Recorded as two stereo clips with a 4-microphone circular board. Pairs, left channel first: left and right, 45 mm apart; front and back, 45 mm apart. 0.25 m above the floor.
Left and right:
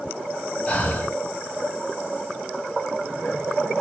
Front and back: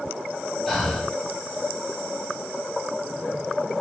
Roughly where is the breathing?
Left.